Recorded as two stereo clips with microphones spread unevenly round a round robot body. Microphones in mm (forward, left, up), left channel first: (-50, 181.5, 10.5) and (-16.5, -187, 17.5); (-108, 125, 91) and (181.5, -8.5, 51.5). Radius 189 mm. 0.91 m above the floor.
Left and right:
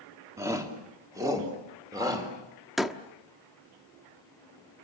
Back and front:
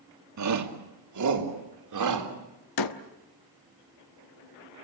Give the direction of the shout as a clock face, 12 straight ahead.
12 o'clock.